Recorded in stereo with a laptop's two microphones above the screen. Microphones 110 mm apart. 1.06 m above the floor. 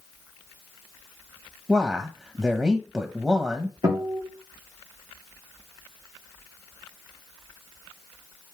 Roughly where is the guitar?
Right.